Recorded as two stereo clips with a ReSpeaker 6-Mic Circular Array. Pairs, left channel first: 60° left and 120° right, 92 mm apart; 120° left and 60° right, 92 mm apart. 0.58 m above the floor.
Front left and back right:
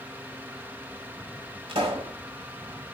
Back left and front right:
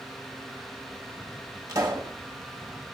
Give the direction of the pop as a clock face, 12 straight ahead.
4 o'clock.